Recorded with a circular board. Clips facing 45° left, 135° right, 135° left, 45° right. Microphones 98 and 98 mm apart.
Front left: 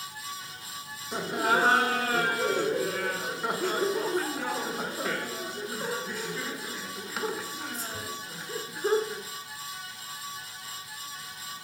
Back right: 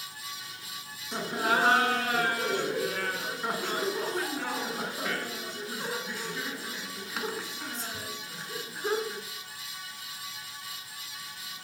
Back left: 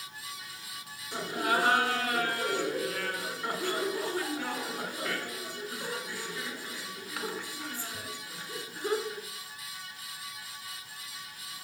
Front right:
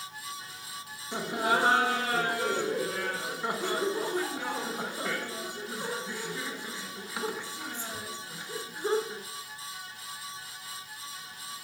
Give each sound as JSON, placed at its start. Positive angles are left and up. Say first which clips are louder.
{"t": 1.1, "sound": "laughter", "louder": "front left 2 dB, front right 2 dB", "azimuth_deg": -40, "distance_m": 1.3}